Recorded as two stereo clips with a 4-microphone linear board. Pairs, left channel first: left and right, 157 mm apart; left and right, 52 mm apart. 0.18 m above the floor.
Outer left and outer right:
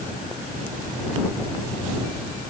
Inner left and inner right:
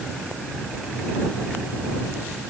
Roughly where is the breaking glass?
No breaking glass in this recording.